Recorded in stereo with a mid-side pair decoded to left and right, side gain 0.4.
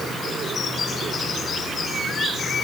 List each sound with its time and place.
Only background noise.